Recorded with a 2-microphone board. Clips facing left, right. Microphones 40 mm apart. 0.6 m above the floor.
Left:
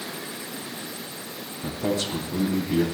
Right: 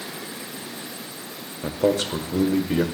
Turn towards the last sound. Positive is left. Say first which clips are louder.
# right 5 dB
turn(degrees=-65)  # may be behind; listen again after turning